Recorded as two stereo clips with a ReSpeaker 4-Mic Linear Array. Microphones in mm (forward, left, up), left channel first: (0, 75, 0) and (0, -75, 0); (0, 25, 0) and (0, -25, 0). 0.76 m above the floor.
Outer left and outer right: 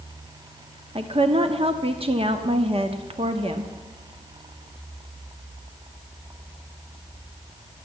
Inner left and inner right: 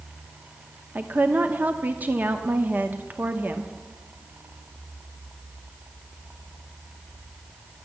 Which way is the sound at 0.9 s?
40° right (ahead or behind).